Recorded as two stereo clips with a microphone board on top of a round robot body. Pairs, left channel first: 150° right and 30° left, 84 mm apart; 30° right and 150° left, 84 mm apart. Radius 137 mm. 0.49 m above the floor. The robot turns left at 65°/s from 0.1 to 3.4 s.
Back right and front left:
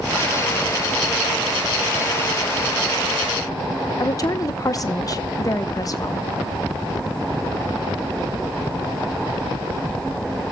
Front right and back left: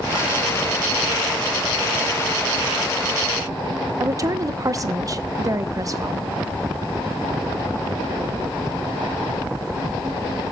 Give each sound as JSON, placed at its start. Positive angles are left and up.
{"t": 4.0, "sound": "a woman speaking", "azimuth_deg": 180, "distance_m": 0.9}